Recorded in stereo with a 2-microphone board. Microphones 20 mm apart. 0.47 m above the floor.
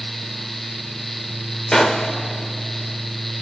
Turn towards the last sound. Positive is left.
turn(degrees=40)  # may be behind; listen again after turning